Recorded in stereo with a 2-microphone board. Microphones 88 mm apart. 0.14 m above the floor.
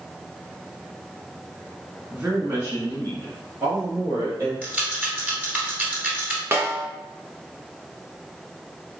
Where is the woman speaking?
10° right (ahead or behind), 1.1 m; by 4.5 s 40° right (ahead or behind), 3 m.